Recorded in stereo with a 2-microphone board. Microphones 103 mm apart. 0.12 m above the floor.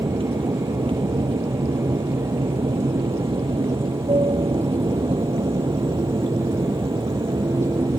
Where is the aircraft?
60° right (ahead or behind); by 8.0 s 50° right (ahead or behind).